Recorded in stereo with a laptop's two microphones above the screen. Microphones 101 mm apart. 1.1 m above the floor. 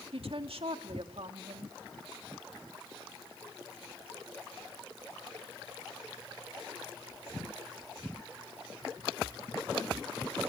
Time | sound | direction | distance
0.1 | a woman speaking | 70° right (ahead or behind) | 2.0 m